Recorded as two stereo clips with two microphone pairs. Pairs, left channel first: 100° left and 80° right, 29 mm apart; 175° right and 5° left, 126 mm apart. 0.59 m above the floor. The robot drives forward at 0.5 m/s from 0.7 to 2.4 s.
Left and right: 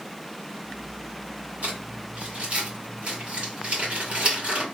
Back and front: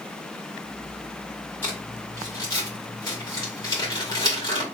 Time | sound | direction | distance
1.6 | crumpling | 105° right | 2 m